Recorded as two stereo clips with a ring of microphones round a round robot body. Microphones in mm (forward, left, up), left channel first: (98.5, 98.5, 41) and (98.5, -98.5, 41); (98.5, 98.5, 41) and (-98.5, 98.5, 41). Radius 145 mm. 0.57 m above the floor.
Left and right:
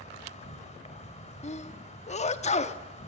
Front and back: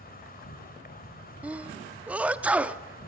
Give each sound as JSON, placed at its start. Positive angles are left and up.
{"t": 0.0, "sound": "an insect", "azimuth_deg": 40, "distance_m": 3.0}
{"t": 1.4, "sound": "a sneeze", "azimuth_deg": 100, "distance_m": 0.9}